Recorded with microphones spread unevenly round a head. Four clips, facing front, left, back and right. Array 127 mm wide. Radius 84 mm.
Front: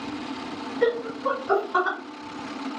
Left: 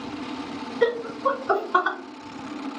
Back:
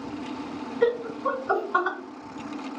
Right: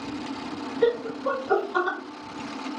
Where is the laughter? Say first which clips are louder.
Left 1 dB, even; 75° left, 1.7 m.